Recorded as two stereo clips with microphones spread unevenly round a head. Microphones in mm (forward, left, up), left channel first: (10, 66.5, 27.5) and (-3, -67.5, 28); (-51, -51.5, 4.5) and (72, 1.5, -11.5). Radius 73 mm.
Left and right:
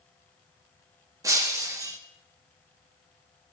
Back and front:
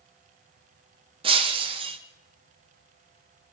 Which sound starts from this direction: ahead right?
Breaking glass, at 1.2 s.